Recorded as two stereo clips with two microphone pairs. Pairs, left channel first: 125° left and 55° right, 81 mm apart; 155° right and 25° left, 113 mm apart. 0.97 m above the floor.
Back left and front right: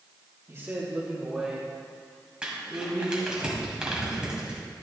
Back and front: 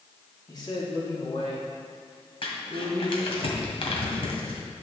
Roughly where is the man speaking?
Right.